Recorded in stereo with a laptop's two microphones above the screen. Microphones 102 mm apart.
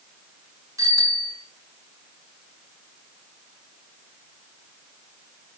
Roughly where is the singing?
No singing in this recording.